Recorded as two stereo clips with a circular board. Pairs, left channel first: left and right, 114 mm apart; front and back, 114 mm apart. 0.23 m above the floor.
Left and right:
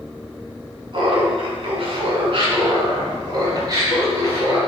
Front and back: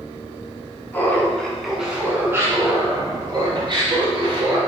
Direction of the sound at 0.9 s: 65° right.